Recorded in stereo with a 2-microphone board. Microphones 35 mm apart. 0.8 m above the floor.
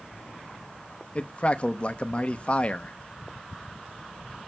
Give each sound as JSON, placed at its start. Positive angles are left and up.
{"t": 1.1, "sound": "a man speaking", "side_deg": 30, "distance_m": 0.7}